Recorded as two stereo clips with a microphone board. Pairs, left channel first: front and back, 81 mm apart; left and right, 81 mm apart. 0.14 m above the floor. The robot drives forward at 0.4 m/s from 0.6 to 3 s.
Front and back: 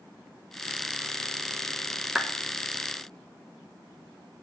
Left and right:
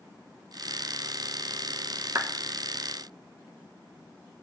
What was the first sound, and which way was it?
A clap, 105° right.